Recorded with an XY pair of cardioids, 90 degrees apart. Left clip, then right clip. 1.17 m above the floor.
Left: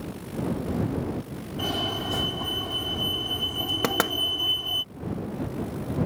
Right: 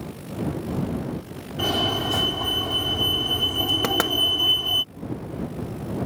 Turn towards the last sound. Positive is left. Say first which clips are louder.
# right 2 dB
turn(degrees=0)